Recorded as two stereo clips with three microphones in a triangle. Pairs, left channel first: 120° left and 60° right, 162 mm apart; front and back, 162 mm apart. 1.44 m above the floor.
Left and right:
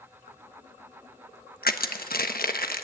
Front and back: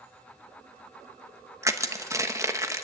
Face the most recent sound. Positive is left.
turn(degrees=110)